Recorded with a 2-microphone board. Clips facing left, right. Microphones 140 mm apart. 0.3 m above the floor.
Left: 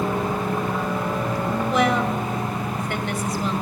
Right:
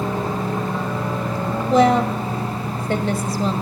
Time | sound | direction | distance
1.7 | a woman speaking | 35° right (ahead or behind) | 1.7 m